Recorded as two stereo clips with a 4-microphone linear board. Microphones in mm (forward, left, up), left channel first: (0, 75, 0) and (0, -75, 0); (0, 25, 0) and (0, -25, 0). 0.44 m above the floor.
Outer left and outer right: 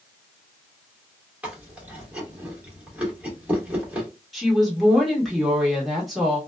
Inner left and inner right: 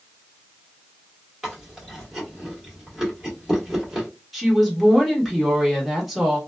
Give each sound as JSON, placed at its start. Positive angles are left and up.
{"t": 1.4, "sound": "chewing", "side_deg": -10, "distance_m": 1.4}
{"t": 4.3, "sound": "a woman speaking", "side_deg": 0, "distance_m": 1.2}